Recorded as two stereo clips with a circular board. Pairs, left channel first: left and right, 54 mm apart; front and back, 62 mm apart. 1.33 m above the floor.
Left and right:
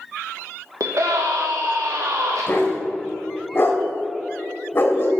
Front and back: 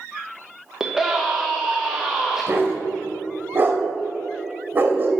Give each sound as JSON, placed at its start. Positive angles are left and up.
{"t": 0.8, "sound": "a scream", "azimuth_deg": -100, "distance_m": 1.0}
{"t": 2.5, "sound": "a dog barking", "azimuth_deg": 130, "distance_m": 1.5}